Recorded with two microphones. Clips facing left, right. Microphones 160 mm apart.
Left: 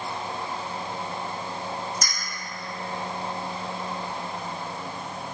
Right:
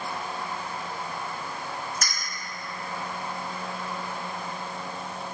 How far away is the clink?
About 0.9 m.